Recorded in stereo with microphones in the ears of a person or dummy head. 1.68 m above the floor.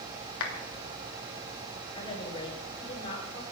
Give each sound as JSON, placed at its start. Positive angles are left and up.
{"t": 0.4, "sound": "a clap", "side_deg": 75, "distance_m": 2.5}
{"t": 1.9, "sound": "a woman speaking", "side_deg": 35, "distance_m": 7.5}